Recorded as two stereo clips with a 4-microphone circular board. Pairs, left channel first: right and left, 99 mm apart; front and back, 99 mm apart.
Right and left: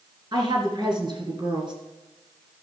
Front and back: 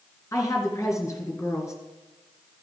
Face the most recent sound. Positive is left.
turn(degrees=55)